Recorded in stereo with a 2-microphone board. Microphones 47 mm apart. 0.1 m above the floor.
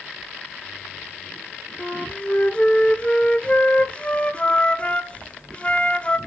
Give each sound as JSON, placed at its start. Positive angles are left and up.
{"t": 1.8, "sound": "a flute", "side_deg": 25, "distance_m": 0.5}